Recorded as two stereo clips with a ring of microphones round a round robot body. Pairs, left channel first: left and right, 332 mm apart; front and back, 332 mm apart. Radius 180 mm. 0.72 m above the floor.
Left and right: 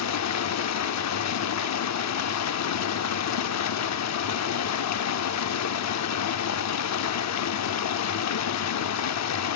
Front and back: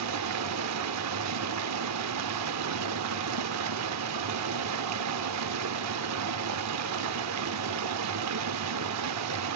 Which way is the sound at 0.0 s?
130° left.